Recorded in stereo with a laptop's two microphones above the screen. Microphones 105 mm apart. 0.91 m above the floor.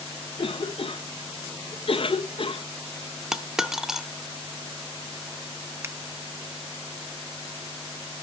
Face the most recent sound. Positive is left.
turn(degrees=-25)  # may be behind; listen again after turning